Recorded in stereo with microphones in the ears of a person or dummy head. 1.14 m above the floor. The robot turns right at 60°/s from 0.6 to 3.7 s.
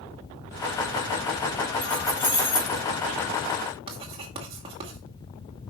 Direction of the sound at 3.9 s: 30° right (ahead or behind).